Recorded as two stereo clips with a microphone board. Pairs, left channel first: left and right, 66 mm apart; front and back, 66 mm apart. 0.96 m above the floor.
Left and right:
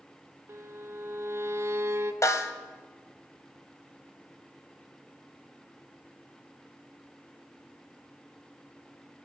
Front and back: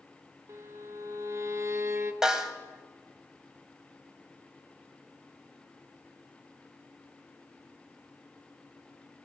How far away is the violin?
About 0.8 m.